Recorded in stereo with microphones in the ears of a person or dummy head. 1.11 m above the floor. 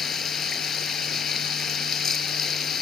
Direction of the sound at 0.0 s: 10° left (ahead or behind).